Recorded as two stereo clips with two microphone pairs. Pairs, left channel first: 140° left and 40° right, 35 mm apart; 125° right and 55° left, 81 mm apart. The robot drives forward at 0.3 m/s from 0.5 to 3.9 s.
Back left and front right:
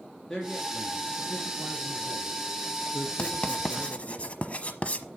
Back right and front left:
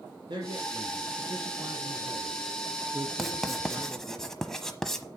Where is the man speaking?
50° left, 3.5 m; by 4.2 s 70° left, 3 m.